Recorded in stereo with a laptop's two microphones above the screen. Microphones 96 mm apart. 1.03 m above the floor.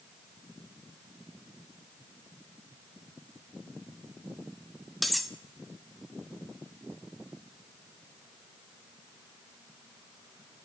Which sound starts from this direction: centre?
Cutlery clinking, at 5.0 s.